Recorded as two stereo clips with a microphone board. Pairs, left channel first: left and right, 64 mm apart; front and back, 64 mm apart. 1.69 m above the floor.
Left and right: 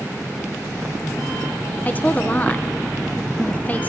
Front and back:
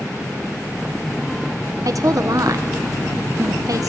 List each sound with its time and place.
1.9 s a woman speaking: 155° left, 1.4 m